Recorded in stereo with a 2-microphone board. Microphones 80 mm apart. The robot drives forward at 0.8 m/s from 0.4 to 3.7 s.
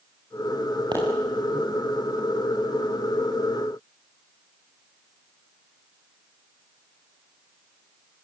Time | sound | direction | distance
0.9 | a pop | 65° right (ahead or behind) | 9 m